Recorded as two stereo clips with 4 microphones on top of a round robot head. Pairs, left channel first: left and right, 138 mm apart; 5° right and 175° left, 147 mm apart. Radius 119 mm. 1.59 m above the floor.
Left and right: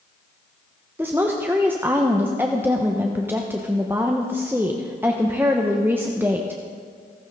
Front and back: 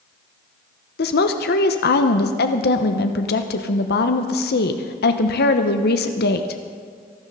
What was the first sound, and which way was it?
A woman speaking, 10° right.